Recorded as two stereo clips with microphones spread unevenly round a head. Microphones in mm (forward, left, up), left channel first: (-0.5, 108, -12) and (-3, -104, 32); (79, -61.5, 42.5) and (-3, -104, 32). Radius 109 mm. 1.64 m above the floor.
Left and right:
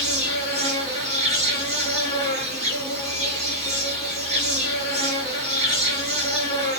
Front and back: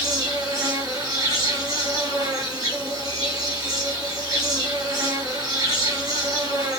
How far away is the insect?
About 1.5 m.